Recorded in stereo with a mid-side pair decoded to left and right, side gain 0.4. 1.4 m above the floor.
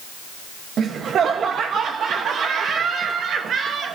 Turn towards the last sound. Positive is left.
turn(degrees=-65)